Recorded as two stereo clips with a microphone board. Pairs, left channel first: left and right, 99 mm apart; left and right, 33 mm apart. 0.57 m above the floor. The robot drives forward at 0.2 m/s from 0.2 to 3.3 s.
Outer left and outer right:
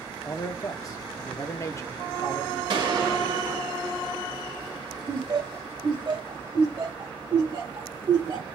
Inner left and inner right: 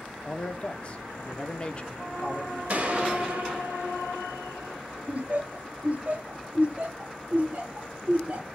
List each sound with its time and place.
0.2 s a man speaking: 35° left (ahead or behind), 0.8 m; by 2.6 s 30° left (ahead or behind), 1.0 m
2.7 s a gunshot: 50° right (ahead or behind), 1.5 m
5.1 s laughter: 55° right (ahead or behind), 1.8 m